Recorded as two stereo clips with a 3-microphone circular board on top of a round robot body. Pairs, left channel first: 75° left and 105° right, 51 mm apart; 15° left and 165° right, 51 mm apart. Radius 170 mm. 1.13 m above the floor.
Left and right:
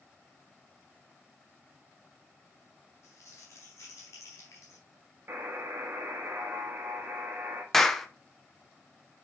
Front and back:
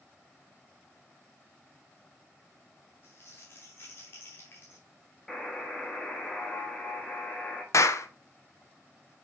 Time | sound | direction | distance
3.0 | crumpling | 55° left | 0.8 m
5.3 | a buzzer | 65° right | 1.1 m
7.7 | a clap | 10° right | 0.8 m